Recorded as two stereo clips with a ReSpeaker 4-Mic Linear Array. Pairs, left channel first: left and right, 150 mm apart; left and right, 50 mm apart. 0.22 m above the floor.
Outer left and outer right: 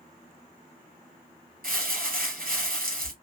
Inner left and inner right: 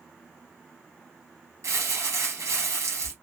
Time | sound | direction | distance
1.6 | crumpling | 75° right (ahead or behind) | 1.8 m